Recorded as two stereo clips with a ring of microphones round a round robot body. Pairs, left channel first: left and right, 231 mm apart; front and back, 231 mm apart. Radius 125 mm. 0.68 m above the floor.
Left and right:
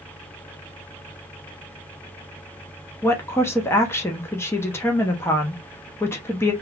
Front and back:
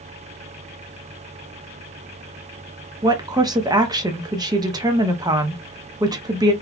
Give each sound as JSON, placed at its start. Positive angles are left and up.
{"t": 3.0, "sound": "a woman speaking", "azimuth_deg": 145, "distance_m": 0.7}